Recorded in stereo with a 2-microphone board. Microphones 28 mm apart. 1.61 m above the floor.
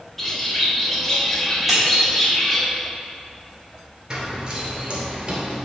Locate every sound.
0.2 s a bird: 10° left (ahead or behind), 1.1 m
1.7 s cutlery clinking: centre (ahead or behind), 2.5 m
4.1 s running footsteps: 25° right (ahead or behind), 1.8 m; by 5.6 s 30° right (ahead or behind), 2 m